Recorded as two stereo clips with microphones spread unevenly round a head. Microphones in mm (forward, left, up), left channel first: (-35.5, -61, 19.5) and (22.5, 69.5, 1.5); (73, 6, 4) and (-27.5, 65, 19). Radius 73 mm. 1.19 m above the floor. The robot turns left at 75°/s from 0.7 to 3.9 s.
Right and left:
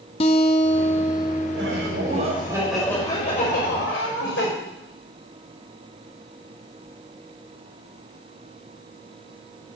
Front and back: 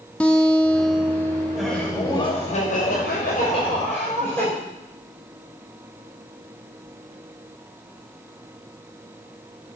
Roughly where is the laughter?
Ahead left.